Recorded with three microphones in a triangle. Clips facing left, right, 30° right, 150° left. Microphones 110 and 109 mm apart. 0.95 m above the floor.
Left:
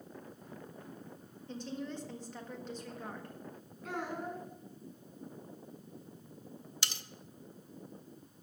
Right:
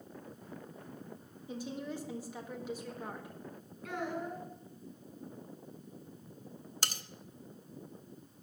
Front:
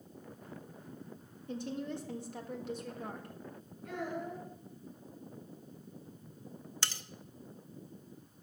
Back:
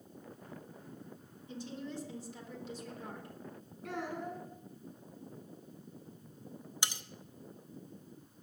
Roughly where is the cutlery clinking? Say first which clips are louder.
Right 4 dB, back 1 dB; behind right.